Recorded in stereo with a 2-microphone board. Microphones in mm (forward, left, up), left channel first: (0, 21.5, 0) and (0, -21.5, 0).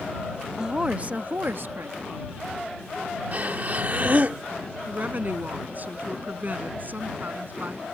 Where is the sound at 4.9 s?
45° right (ahead or behind).